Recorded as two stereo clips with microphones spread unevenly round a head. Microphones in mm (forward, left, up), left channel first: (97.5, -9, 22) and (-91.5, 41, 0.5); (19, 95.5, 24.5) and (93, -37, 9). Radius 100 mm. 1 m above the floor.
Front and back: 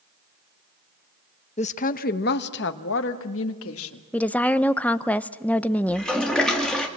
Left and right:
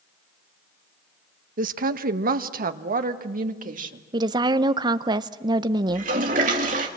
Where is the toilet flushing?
105° right, 2 m.